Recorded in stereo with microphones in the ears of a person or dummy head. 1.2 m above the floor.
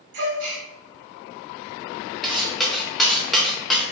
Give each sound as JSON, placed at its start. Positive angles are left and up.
{"t": 0.1, "sound": "a gasp", "side_deg": -60, "distance_m": 1.4}
{"t": 2.2, "sound": "cutlery clinking", "side_deg": 0, "distance_m": 0.6}